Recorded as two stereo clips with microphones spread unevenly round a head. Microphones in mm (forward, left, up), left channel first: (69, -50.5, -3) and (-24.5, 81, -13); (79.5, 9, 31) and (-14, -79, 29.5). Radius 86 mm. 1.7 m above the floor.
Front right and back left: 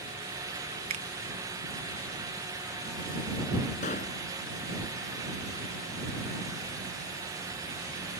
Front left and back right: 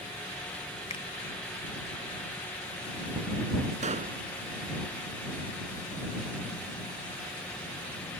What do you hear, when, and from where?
0.9 s a finger snap: 90° left
3.8 s a pop: 105° right